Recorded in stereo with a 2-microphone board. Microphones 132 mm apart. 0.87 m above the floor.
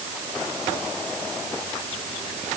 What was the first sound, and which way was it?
Only background noise.